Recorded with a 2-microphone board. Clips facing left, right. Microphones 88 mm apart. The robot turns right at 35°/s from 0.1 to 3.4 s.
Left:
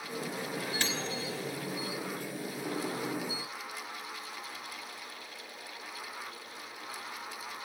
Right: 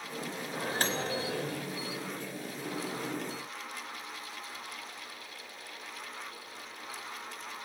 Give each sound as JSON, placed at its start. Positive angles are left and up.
{"t": 0.5, "sound": "a microwave", "azimuth_deg": -150, "distance_m": 3.0}